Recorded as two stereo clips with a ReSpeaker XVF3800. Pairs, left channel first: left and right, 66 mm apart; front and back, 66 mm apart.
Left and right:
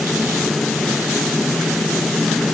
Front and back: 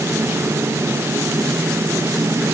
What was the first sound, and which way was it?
Only background noise.